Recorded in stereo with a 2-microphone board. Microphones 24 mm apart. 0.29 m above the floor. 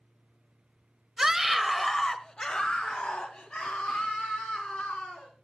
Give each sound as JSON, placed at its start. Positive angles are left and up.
{"t": 1.2, "sound": "a scream", "side_deg": -20, "distance_m": 1.1}